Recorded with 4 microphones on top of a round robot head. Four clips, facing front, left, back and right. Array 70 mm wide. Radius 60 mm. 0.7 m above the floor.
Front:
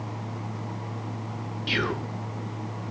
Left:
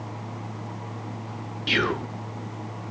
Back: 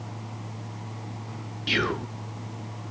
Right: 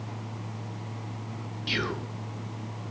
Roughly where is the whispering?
Left.